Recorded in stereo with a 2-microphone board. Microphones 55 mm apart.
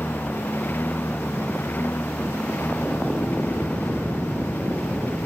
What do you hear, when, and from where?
0.0 s a lawn mower: 35° left (ahead or behind)